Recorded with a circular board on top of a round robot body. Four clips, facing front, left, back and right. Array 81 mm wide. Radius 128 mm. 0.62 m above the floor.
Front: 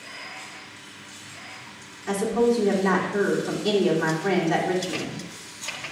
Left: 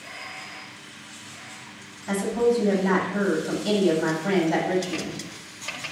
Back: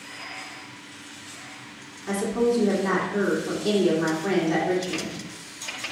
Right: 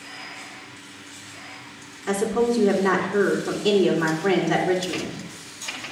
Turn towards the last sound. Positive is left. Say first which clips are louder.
# right 1 dB, front 2 dB
turn(degrees=-90)